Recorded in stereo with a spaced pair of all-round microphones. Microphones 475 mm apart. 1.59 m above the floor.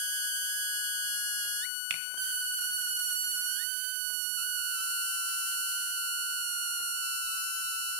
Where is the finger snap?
80° right, 1.6 m.